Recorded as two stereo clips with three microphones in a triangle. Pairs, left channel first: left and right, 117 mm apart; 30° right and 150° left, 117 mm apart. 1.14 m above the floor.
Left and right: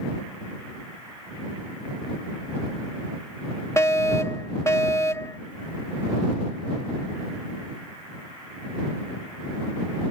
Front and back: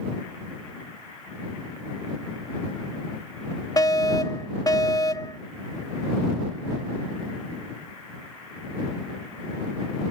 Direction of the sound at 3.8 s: 25° left.